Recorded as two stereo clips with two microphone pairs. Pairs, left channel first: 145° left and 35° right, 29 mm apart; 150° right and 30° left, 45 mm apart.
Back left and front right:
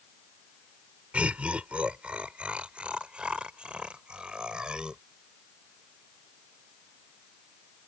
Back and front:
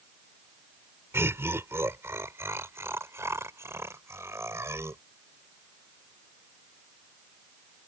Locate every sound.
1.1 s laughter: 5° left; by 5.0 s 20° left